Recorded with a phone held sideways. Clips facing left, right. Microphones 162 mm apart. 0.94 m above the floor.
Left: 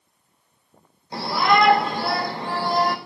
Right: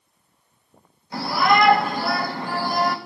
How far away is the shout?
About 4.5 m.